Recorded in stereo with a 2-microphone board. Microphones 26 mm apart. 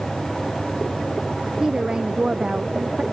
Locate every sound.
1.6 s a woman speaking: 30° right (ahead or behind)